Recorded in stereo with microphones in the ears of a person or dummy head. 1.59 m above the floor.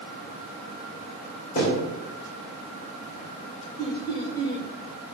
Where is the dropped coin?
No dropped coin in this recording.